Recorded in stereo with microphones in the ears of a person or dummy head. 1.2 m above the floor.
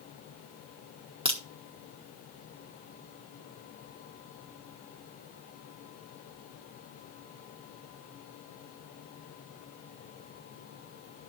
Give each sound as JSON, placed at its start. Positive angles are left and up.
{"t": 1.2, "sound": "a crack", "side_deg": -30, "distance_m": 1.1}